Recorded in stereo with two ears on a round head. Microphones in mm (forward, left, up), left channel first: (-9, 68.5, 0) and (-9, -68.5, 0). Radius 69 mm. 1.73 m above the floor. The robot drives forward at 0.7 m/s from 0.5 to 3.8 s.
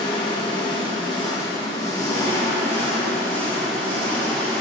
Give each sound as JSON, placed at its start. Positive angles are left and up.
{"t": 0.0, "sound": "an engine running", "side_deg": 30, "distance_m": 1.1}